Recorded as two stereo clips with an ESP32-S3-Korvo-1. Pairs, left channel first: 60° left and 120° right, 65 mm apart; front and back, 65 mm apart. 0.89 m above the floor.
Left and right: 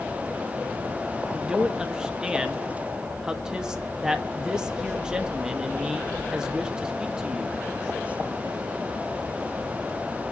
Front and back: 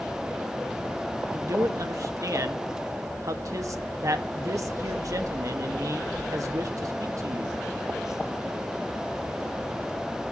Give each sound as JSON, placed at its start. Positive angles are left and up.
{"t": 1.3, "sound": "a man speaking", "azimuth_deg": 160, "distance_m": 1.4}